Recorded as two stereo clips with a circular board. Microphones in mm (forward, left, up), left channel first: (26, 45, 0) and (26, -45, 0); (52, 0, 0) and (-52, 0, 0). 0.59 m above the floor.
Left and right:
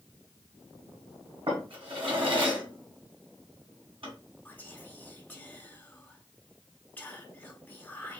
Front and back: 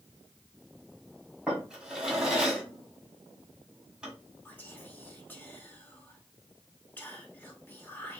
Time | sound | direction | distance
1.5 | a drawer | 95° right | 1.8 m
4.5 | whispering | 45° left | 1.2 m